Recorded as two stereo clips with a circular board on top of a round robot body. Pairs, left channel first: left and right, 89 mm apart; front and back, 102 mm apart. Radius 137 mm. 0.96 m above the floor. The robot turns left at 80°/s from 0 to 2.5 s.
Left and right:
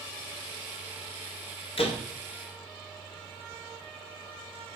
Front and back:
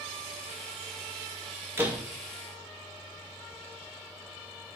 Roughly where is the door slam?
Left.